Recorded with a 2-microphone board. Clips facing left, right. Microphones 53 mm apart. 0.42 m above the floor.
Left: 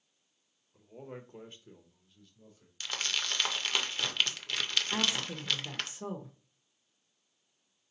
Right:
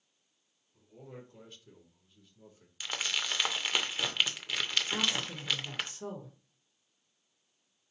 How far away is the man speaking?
About 1.2 m.